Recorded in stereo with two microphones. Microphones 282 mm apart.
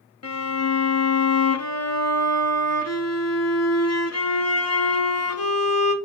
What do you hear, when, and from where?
0.2 s a violin: 65° left (ahead or behind), 0.6 m